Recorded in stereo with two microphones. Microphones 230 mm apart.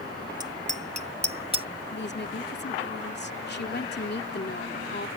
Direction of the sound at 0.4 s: 30° right (ahead or behind).